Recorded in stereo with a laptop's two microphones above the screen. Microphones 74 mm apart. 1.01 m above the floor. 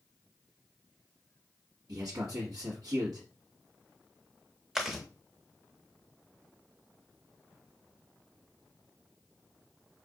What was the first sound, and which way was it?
A man speaking, 65° right (ahead or behind).